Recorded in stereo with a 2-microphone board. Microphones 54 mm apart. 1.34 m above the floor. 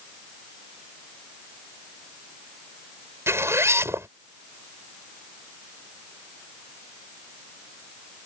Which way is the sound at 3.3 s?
55° right (ahead or behind).